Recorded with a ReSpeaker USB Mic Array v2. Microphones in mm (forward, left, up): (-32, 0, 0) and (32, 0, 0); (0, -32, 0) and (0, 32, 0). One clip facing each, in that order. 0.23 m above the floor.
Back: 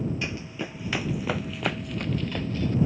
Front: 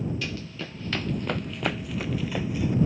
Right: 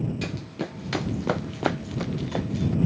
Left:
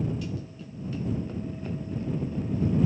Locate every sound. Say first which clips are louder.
0.2 s running footsteps: back 2 dB, right 5 dB; 110° right; by 2.8 s 80° right